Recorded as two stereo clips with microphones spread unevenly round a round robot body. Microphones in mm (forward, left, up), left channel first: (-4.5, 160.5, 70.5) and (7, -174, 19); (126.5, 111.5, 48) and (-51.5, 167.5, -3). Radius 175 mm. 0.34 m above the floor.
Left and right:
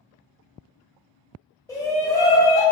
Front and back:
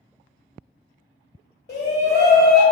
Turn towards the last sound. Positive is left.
turn(degrees=5)